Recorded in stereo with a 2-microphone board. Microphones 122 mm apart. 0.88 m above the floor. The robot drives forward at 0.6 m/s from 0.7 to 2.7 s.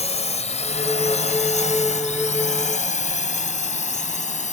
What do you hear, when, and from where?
0.0 s a drone: 65° left (ahead or behind); by 4.5 s 80° left